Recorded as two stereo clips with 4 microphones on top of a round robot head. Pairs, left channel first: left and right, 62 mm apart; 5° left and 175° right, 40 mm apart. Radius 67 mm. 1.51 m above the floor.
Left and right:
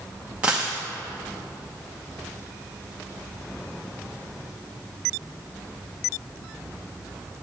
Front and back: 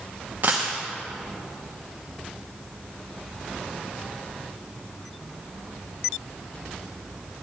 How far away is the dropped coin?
About 0.9 m.